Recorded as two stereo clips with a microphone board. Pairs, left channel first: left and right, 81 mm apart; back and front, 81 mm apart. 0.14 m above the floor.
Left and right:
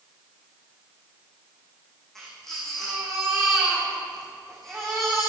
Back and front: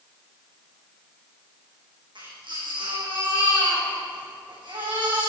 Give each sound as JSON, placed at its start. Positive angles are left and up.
{"t": 2.1, "sound": "a baby crying", "azimuth_deg": 5, "distance_m": 6.0}